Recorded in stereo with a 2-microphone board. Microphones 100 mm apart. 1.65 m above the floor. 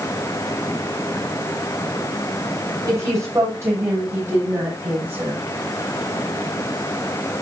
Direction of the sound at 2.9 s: 30° right (ahead or behind).